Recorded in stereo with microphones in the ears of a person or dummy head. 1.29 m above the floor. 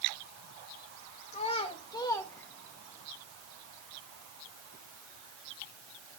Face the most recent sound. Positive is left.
turn(degrees=-5)  # may be behind; listen again after turning